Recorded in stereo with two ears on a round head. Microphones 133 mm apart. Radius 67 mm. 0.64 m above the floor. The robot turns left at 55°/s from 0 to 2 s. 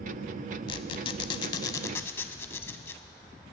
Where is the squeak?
105° left, 0.5 m; by 3.0 s 30° left, 0.5 m.